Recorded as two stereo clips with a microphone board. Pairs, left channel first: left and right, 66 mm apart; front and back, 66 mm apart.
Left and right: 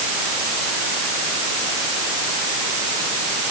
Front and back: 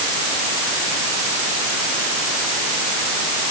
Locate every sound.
Only background noise.